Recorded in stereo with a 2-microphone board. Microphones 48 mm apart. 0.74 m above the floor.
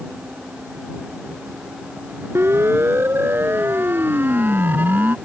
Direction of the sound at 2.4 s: 60° right (ahead or behind).